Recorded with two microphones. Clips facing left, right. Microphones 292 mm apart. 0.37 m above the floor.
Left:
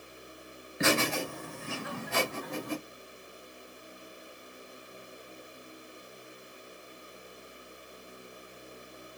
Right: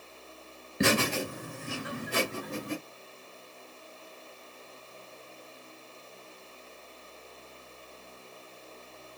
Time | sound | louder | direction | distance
0.8 | laughter | right 2 dB | 40° right (ahead or behind) | 2.0 m